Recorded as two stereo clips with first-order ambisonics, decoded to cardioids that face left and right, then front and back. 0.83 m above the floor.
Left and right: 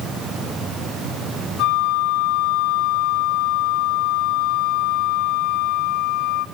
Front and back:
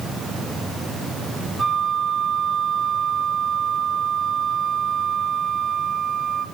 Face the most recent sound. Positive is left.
turn(degrees=105)